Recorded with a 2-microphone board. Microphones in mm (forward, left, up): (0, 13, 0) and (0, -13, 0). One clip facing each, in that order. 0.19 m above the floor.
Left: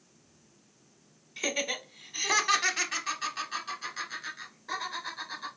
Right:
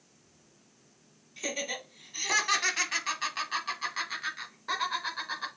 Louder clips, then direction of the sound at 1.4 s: Left 3 dB; 30° left (ahead or behind).